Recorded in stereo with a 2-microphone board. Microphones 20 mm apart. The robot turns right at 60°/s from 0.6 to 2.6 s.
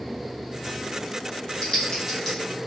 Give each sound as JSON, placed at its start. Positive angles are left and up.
{"t": 1.6, "sound": "typing on a keyboard", "side_deg": 45, "distance_m": 1.5}